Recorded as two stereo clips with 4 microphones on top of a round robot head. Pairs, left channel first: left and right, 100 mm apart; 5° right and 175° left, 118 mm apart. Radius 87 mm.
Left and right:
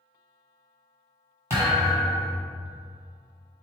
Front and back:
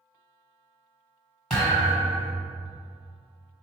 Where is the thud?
80° right, 1.2 m.